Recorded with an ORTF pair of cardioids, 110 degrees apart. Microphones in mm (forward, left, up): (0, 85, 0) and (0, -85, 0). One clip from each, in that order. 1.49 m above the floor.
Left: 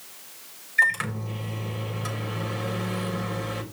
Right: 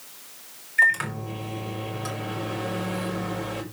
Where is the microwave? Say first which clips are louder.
Right 2 dB; straight ahead, 4 m.